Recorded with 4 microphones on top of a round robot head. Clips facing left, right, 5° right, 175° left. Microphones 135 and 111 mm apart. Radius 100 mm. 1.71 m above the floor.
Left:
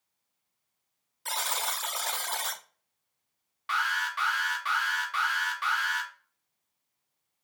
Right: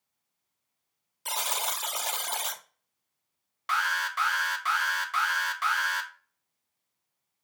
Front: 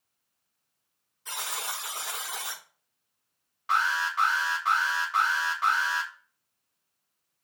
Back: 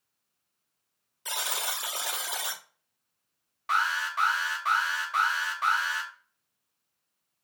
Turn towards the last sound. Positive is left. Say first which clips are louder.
# right 1 dB, front 2 dB
turn(degrees=-125)